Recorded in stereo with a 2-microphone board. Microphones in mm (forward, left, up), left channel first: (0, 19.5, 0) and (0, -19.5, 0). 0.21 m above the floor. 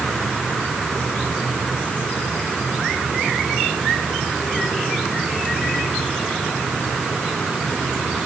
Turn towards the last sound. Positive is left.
No sound to turn to.